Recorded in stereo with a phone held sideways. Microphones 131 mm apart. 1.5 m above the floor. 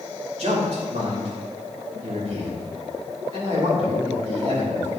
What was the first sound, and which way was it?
A man speaking, 60° right (ahead or behind).